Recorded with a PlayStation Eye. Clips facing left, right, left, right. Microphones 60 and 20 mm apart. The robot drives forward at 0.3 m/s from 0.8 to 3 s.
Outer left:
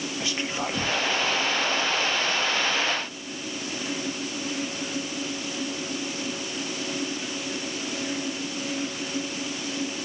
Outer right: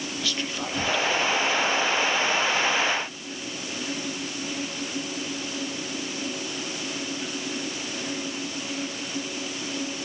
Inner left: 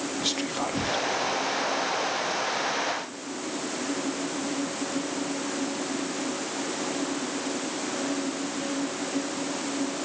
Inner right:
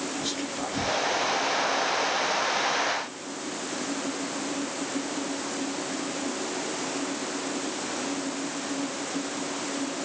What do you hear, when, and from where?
0.2 s whispering: 25° left (ahead or behind), 1.6 m